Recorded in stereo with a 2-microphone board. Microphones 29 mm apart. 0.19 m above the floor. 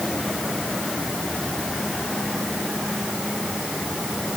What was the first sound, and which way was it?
Only background noise.